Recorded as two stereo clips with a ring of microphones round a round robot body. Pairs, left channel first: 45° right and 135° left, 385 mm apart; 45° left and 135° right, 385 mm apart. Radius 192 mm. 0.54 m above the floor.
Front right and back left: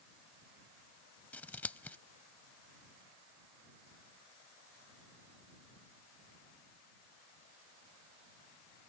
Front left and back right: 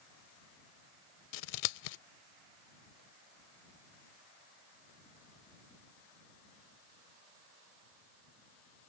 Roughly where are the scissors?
Ahead left.